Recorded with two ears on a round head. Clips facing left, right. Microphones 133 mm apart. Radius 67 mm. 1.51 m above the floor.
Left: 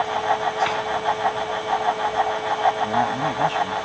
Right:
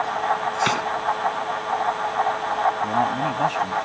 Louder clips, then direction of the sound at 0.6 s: Even; 60° right (ahead or behind).